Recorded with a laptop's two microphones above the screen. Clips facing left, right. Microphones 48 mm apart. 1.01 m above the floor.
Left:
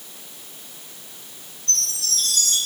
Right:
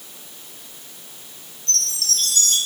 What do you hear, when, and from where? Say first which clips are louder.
1.7 s a chime: right 2 dB; 75° right (ahead or behind), 6.5 m